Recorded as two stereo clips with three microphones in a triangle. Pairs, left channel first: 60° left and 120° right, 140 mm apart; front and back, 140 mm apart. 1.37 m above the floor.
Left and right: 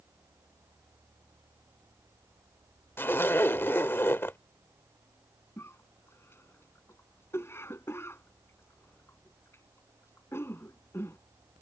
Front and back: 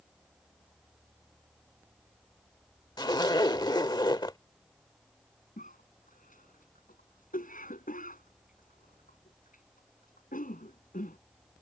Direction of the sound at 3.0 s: Straight ahead.